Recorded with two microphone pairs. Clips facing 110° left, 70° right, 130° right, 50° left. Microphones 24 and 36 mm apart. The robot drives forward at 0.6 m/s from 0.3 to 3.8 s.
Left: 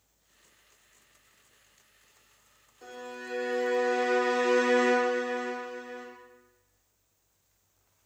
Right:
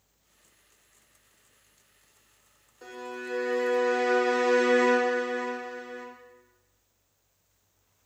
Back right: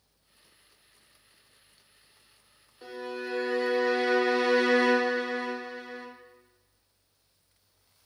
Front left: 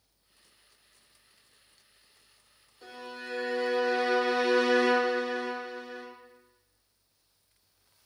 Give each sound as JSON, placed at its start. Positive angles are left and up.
{"t": 2.8, "sound": "a violin", "azimuth_deg": -105, "distance_m": 0.9}